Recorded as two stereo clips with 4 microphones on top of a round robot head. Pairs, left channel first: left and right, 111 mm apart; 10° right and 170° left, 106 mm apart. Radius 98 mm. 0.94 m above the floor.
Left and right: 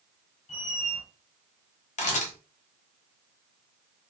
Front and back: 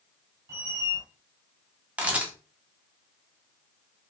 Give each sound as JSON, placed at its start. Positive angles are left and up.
{"t": 0.5, "sound": "a squeak", "azimuth_deg": 105, "distance_m": 2.0}
{"t": 2.0, "sound": "a camera shutter", "azimuth_deg": 90, "distance_m": 1.5}